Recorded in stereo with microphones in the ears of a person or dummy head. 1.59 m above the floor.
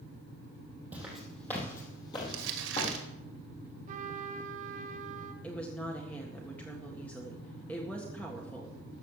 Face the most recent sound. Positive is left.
turn(degrees=10)  # may be behind; listen again after turning